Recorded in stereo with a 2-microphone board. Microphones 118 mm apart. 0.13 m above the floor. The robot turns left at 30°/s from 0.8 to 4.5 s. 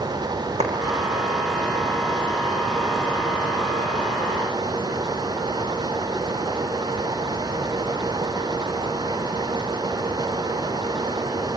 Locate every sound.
0.6 s a clap: 70° right (ahead or behind), 5.5 m